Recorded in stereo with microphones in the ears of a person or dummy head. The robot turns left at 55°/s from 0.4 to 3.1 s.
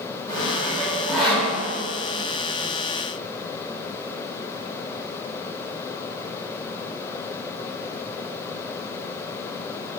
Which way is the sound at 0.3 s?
40° right (ahead or behind).